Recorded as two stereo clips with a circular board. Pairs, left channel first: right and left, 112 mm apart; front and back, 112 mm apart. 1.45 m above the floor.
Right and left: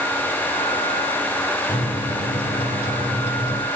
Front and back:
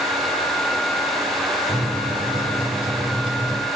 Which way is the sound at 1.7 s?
135° right.